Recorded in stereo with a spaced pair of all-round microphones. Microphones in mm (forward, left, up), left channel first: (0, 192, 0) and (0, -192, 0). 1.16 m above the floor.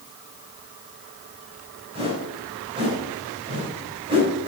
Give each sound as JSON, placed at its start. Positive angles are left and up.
{"t": 1.9, "sound": "a whoosh", "side_deg": -15, "distance_m": 3.0}